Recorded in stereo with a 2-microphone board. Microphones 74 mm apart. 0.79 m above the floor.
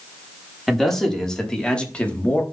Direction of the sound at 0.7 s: Centre (ahead or behind).